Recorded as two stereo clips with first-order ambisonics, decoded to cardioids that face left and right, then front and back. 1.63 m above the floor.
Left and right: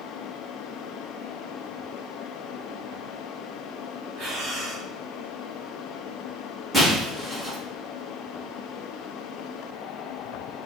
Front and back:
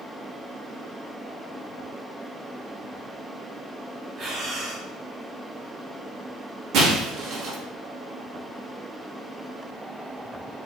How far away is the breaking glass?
About 1.4 m.